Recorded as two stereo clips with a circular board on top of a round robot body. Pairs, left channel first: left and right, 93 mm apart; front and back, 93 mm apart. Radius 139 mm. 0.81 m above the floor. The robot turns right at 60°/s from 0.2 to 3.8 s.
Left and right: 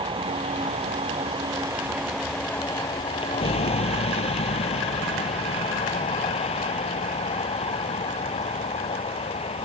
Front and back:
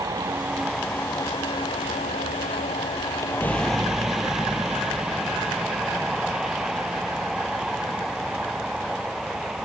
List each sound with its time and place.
0.0 s a vehicle: 120° right; by 9.7 s 95° left